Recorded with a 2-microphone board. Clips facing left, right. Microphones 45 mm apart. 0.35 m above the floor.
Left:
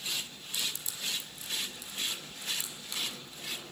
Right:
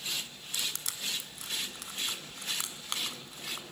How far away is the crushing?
About 1.7 m.